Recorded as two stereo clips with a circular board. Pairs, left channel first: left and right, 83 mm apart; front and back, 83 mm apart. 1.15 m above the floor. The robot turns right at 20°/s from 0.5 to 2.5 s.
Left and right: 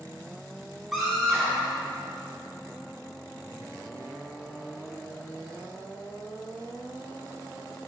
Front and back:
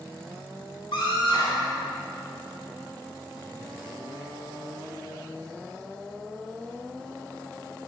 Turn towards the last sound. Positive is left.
turn(degrees=30)